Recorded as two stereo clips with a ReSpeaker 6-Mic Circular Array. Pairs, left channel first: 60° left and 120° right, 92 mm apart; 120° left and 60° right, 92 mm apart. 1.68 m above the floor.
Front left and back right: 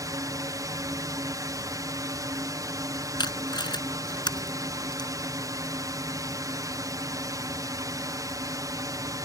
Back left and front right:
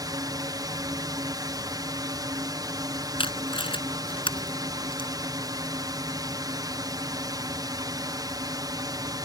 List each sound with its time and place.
0.0 s a drone: 85° right
3.2 s tape being pulled: 100° left